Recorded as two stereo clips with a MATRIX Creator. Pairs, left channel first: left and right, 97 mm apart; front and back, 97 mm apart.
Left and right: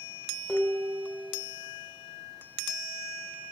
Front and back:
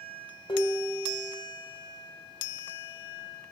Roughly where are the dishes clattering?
Ahead.